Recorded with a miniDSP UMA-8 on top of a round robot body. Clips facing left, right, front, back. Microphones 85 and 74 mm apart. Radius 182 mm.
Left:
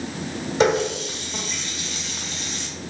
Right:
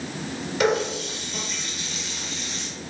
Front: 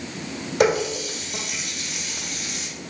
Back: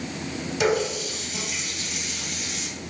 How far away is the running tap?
About 1.7 m.